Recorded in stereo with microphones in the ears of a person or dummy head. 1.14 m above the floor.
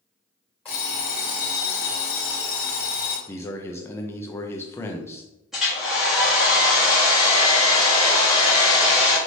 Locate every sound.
0.7 s an alarm clock: 10° left (ahead or behind), 1.8 m
3.3 s a man speaking: 15° left (ahead or behind), 0.5 m
5.5 s a hair dryer: centre (ahead or behind), 1.4 m